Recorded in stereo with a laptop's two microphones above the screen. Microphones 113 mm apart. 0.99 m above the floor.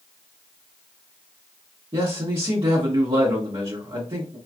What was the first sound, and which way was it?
A man speaking, 55° right (ahead or behind).